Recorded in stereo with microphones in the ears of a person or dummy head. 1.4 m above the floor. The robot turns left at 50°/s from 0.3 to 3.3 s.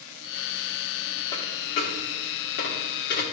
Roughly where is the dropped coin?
Left.